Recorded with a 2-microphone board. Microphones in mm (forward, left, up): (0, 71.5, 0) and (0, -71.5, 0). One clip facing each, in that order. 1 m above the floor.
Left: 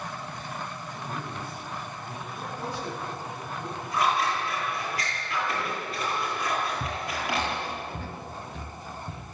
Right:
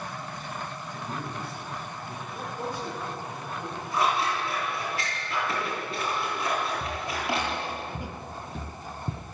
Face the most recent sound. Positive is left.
turn(degrees=-50)  # may be behind; listen again after turning